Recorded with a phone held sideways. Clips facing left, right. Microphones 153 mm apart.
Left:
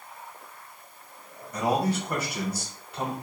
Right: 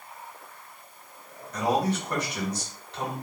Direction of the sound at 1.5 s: 10° left (ahead or behind).